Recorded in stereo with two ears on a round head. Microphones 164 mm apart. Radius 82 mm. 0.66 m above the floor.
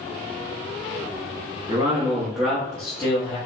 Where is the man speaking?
30° right (ahead or behind), 0.7 m; by 3.4 s 30° left (ahead or behind), 0.9 m.